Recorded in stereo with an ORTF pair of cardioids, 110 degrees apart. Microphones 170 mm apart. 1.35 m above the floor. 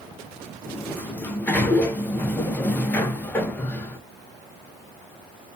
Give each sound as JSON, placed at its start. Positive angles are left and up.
{"t": 0.7, "sound": "a sliding door", "azimuth_deg": 10, "distance_m": 0.7}